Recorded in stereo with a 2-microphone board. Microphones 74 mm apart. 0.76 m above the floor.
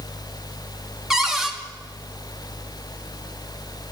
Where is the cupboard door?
5° right (ahead or behind), 1.4 m.